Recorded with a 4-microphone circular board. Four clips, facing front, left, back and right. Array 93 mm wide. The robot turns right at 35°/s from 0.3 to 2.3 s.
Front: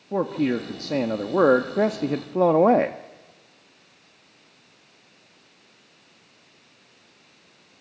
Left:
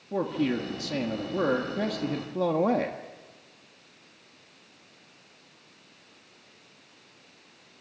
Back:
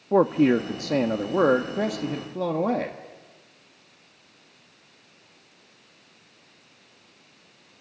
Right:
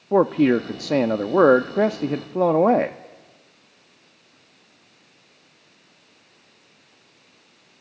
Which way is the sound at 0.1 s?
115° right.